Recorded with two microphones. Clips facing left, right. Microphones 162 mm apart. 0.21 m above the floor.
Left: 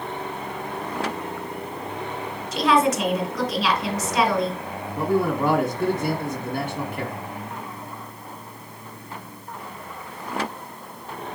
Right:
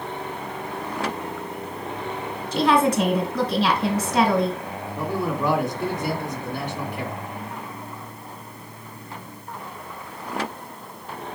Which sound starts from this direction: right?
A woman speaking, at 2.5 s.